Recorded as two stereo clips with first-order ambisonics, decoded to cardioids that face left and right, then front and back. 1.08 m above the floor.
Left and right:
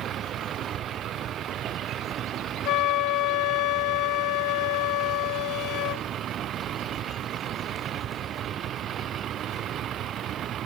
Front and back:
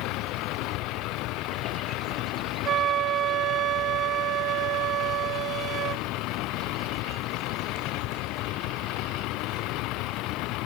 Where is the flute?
125° left.